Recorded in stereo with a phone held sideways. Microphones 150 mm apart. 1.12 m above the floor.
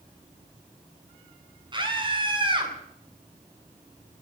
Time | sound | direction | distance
1.7 | a scream | 30° right (ahead or behind) | 8.5 m